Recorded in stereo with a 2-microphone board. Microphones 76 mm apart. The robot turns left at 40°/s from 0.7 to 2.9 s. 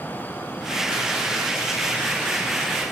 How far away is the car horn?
No car horn in this recording.